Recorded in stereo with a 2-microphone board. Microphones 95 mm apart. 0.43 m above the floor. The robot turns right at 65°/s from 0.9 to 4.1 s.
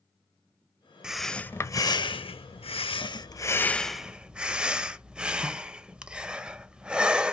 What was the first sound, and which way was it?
Breathing, 10° right.